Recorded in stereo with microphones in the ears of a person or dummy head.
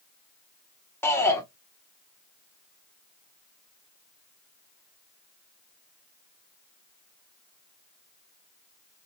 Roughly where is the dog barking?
No dog barking in this recording.